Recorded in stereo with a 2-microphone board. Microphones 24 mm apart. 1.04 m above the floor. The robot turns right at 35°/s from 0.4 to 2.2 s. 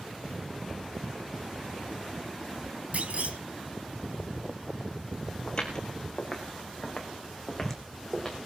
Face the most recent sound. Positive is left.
turn(degrees=10)  # may be behind; listen again after turning